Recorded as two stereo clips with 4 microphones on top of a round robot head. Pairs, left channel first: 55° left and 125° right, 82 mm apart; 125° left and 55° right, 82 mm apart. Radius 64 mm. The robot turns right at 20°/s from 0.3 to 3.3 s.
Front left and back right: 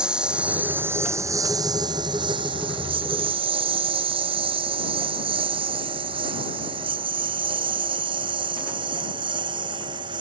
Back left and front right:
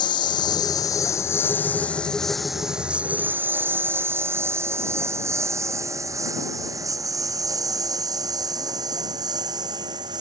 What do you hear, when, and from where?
0.0 s a lawn mower: 160° left; by 10.2 s 95° right